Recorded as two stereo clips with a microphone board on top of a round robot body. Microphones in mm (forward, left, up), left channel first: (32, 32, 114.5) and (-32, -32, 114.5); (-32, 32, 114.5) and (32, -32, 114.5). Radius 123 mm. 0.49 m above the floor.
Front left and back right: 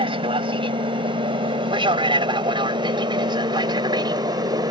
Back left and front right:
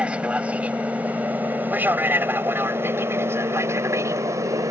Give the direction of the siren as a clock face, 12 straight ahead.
I don't hear a siren.